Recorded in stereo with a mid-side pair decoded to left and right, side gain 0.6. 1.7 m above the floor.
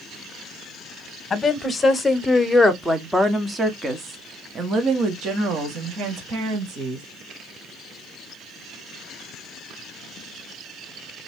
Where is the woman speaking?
25° left, 1.6 m; by 7.0 s 60° right, 2.5 m.